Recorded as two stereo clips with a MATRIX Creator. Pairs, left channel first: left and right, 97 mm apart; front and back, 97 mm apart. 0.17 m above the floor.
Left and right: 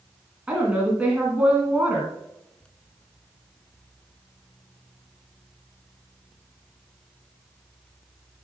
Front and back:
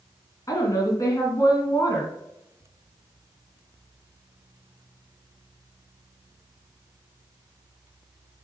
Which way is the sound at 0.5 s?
20° right.